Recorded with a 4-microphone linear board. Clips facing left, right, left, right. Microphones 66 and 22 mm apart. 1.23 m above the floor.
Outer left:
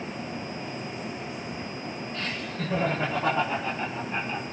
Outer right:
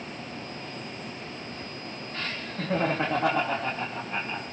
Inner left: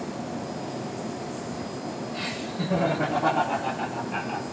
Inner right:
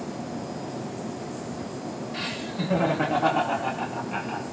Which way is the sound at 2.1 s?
80° right.